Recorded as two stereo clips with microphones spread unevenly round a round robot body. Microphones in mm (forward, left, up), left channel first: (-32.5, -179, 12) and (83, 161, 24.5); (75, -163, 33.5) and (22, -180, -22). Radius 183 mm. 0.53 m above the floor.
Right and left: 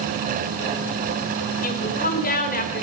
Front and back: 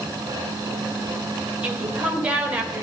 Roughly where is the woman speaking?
Behind.